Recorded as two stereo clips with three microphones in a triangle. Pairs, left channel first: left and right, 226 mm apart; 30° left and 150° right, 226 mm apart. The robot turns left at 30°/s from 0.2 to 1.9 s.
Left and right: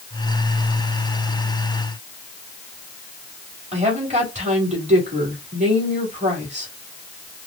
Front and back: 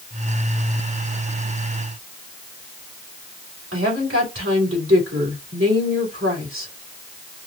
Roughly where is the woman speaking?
Behind right.